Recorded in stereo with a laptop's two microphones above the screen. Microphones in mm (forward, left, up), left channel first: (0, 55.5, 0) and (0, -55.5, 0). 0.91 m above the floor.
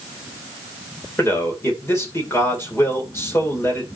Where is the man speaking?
25° left (ahead or behind), 2.5 m.